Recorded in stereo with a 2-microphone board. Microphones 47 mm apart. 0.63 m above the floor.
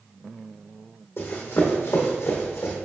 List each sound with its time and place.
1.2 s running footsteps: 55° left (ahead or behind), 1.7 m; by 2.8 s 70° left (ahead or behind), 1.8 m